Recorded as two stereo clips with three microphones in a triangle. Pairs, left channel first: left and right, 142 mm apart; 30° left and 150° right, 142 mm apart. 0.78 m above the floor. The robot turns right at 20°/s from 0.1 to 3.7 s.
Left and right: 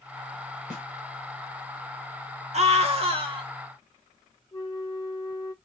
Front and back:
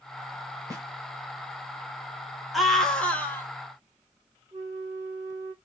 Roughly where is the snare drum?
Right.